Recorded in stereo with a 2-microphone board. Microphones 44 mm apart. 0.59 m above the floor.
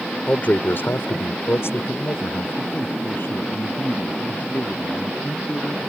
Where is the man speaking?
35° left (ahead or behind); by 5.8 s 40° left (ahead or behind).